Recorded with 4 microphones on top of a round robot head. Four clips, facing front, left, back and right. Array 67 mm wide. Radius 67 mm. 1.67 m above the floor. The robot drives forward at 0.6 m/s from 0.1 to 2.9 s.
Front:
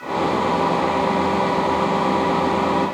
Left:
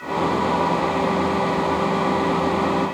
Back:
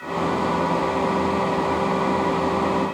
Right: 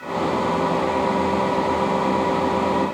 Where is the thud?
I don't hear a thud.